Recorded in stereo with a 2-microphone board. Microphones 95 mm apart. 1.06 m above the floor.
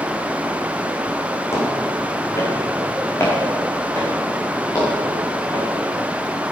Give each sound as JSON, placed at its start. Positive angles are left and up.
{"t": 1.5, "sound": "footsteps", "side_deg": 25, "distance_m": 3.0}